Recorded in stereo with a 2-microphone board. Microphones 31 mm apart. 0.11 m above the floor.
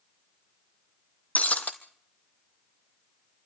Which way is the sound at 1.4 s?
55° left (ahead or behind).